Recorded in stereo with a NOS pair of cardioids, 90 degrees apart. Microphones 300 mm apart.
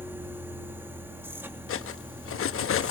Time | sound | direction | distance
0.0 | a machine running | 5° right | 2.5 m
1.7 | cutlery clinking | 45° left | 1.1 m